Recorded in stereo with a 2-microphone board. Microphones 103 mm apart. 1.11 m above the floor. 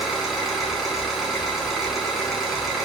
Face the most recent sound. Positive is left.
turn(degrees=0)  # may be behind; listen again after turning